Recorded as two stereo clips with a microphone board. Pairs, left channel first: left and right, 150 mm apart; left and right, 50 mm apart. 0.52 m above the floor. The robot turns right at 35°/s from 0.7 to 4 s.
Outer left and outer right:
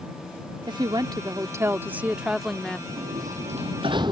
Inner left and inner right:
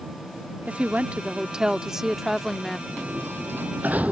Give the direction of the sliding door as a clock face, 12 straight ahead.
2 o'clock.